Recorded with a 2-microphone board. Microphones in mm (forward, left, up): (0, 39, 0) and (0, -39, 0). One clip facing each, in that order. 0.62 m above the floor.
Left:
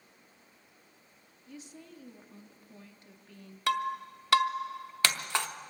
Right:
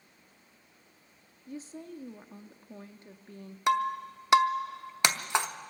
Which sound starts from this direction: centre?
Breaking glass, at 3.7 s.